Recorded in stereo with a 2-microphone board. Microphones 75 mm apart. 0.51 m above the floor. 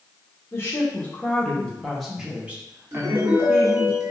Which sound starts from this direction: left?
A woman speaking, at 0.5 s.